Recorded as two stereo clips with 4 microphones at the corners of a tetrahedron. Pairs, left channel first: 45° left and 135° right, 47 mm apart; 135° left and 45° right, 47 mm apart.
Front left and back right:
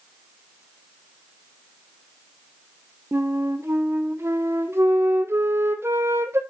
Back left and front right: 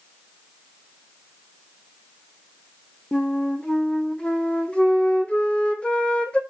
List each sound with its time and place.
3.1 s a flute: 160° right, 0.9 m